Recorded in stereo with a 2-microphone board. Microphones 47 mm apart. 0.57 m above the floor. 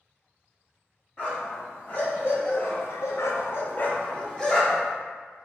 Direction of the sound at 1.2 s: 30° left (ahead or behind).